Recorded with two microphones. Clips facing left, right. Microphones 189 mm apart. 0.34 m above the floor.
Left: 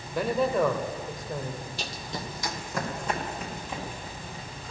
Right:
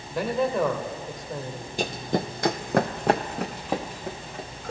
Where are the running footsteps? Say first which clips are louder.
Right 10 dB; 50° right (ahead or behind), 0.6 m; by 4.7 s 60° right (ahead or behind), 2 m.